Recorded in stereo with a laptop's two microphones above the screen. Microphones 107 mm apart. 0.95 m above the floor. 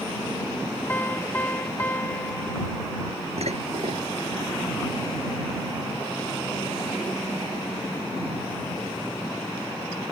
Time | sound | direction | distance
0.9 | a piano | 20° left (ahead or behind) | ?
3.4 | dishes clattering | 80° right | ?